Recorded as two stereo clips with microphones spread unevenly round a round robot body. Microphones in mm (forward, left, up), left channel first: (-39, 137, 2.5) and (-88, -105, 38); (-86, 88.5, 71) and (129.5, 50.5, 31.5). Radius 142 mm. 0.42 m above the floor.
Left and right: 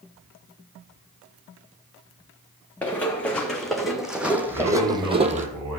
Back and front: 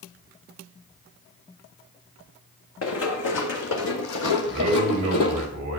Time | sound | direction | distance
2.8 | running footsteps | 165° left | 2 m
4.5 | a man speaking | 65° right | 4 m